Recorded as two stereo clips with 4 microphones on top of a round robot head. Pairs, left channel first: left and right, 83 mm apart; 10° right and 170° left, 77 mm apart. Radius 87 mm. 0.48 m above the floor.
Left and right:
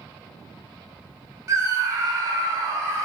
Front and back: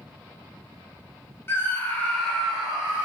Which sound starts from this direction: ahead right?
A scream, at 1.5 s.